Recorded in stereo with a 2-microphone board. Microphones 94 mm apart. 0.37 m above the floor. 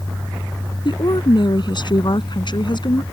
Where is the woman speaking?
55° left (ahead or behind).